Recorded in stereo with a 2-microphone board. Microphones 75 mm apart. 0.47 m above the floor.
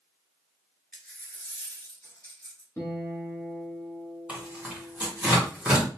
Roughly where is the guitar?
Left.